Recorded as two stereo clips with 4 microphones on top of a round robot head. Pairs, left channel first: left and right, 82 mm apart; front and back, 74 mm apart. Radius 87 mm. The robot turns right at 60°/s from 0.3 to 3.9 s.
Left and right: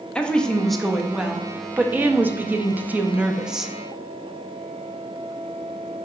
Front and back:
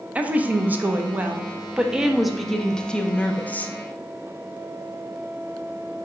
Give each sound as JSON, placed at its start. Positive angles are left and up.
{"t": 0.1, "sound": "a woman speaking", "azimuth_deg": 150, "distance_m": 0.6}